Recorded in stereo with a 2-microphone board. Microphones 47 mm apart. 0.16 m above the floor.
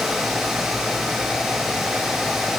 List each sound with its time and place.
Only background noise.